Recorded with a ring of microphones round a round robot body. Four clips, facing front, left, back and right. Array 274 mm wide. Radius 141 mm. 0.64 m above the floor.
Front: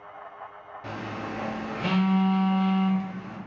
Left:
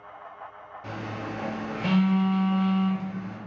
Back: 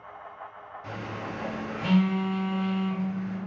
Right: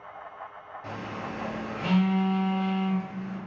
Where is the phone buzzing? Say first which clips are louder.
Left 2 dB, front 2 dB; 25° left, 0.6 m.